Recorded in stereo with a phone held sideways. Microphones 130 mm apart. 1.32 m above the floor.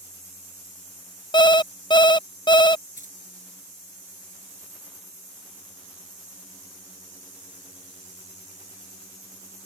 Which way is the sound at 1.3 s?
35° left (ahead or behind).